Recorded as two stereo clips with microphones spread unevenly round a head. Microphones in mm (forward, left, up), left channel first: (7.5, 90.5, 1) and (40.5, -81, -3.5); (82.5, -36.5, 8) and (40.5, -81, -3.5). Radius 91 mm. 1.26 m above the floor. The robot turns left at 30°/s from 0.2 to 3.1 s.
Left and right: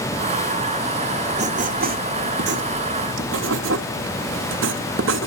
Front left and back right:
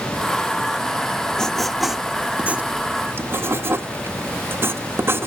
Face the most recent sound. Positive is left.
turn(degrees=-80)